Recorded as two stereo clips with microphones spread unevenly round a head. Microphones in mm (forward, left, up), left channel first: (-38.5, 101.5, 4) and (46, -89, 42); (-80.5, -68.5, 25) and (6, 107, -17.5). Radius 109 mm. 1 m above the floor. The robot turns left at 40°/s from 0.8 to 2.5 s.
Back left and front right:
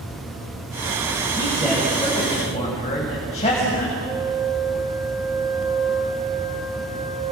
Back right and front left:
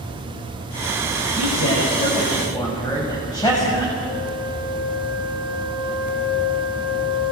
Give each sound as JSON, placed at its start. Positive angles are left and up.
{"t": 1.4, "sound": "a man speaking", "azimuth_deg": -140, "distance_m": 6.0}
{"t": 4.0, "sound": "a flute", "azimuth_deg": -145, "distance_m": 1.6}